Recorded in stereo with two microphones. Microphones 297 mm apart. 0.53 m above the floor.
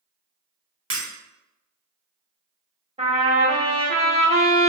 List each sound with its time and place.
0.9 s breaking glass: 60° right (ahead or behind), 1.5 m
3.0 s a trumpet: 20° right (ahead or behind), 0.8 m